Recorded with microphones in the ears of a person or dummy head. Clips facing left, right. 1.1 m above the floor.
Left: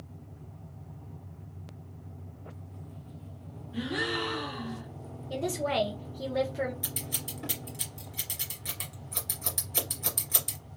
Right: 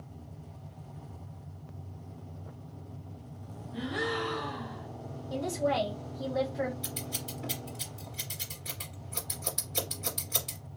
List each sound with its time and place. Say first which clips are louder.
3.7 s a gasp: left 1 dB; 40° left (ahead or behind), 1.9 m
5.3 s a woman speaking: even; 35° left (ahead or behind), 1.3 m
6.8 s scissors: right 1 dB; 35° left (ahead or behind), 2 m